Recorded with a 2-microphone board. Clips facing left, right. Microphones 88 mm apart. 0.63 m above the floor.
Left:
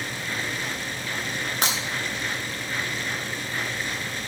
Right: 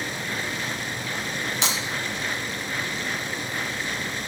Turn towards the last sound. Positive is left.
turn(degrees=50)  # may be behind; listen again after turning